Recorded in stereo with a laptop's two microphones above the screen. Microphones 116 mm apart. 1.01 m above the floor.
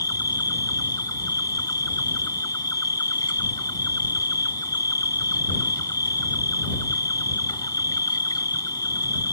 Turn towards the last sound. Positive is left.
turn(degrees=35)  # may be behind; listen again after turning